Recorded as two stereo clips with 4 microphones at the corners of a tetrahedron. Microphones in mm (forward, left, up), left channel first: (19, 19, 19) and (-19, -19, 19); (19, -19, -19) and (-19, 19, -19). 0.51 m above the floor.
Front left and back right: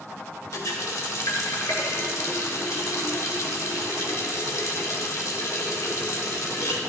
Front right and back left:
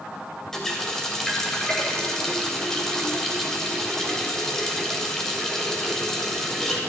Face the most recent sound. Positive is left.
turn(degrees=35)